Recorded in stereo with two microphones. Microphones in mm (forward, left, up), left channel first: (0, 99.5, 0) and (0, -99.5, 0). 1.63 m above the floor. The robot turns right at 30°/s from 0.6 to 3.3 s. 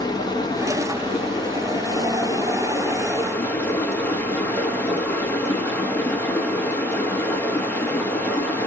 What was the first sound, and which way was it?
Running water, 20° left (ahead or behind).